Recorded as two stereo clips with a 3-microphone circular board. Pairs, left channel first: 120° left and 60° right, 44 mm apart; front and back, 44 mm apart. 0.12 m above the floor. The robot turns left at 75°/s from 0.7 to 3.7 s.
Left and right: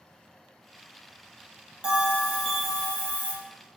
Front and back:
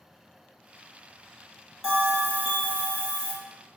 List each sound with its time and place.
1.8 s a bell: 105° right, 1.0 m; by 3.3 s 145° left, 1.0 m